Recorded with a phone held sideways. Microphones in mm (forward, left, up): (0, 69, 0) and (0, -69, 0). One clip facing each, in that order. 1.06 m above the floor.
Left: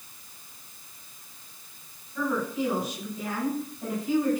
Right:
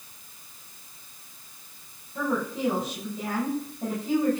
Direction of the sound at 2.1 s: 30° right (ahead or behind).